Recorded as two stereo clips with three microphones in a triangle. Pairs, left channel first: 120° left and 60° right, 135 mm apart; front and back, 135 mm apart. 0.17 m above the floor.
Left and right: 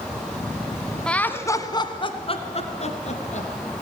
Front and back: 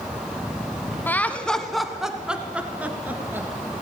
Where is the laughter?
50° left, 1.0 m; by 3.8 s 105° left, 2.5 m.